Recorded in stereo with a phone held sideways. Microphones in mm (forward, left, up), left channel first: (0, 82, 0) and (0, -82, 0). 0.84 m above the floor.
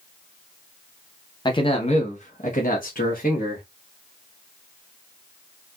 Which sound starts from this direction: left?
A man speaking, at 1.4 s.